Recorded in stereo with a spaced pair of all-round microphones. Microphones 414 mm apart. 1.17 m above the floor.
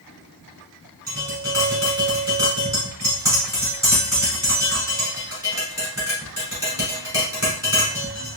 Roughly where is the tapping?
Left.